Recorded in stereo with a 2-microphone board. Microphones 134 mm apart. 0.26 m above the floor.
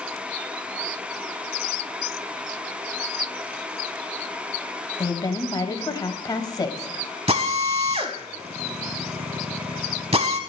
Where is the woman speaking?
30° left (ahead or behind), 1.0 m.